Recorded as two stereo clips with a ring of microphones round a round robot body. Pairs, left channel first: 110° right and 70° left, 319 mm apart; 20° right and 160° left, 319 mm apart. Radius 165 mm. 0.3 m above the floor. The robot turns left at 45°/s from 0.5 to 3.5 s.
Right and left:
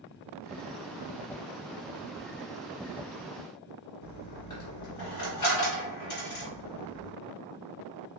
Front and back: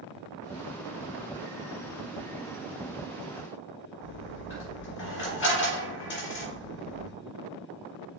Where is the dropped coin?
80° right, 2 m.